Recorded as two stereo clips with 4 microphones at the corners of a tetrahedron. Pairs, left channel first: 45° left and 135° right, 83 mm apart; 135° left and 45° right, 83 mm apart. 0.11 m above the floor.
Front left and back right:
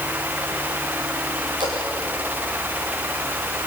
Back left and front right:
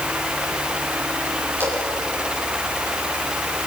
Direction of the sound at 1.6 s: 110° right.